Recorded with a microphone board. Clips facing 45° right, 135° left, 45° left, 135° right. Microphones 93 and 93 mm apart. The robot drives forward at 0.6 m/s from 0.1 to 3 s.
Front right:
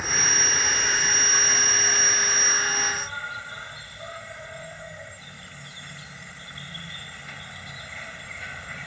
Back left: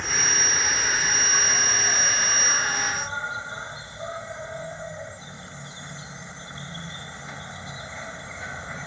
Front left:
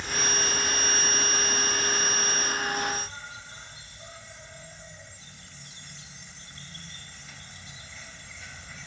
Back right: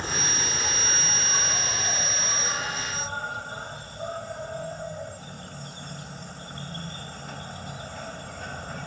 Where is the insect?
130° right; by 8.9 s 160° right.